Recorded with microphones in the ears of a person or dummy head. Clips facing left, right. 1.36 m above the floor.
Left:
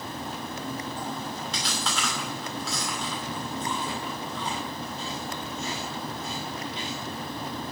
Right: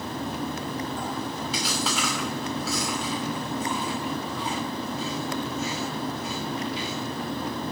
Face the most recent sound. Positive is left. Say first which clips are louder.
# right 6 dB
turn(degrees=-5)  # may be behind; listen again after turning